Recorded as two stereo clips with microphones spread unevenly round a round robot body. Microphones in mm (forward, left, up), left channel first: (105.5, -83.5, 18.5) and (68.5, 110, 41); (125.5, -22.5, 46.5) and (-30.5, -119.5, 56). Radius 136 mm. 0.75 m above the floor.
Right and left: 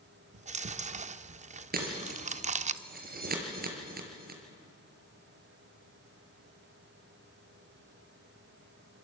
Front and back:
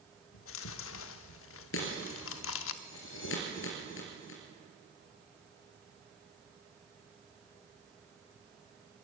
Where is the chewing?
45° left, 0.6 m.